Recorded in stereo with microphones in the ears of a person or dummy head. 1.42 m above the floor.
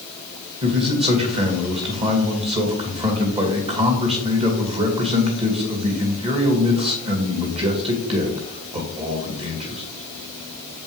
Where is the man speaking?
30° right (ahead or behind), 2.5 m.